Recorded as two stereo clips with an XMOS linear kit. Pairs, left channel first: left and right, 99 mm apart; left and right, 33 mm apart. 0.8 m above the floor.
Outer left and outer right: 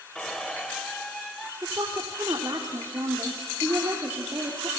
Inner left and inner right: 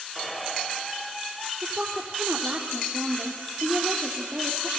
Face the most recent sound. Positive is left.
turn(degrees=-35)  # may be behind; listen again after turning